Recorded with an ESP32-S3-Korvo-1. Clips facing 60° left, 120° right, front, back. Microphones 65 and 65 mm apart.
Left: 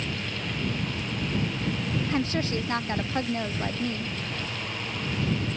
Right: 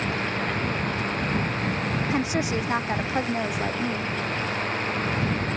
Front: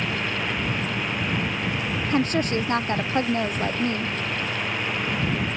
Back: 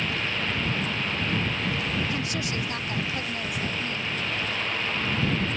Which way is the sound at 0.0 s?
80° right.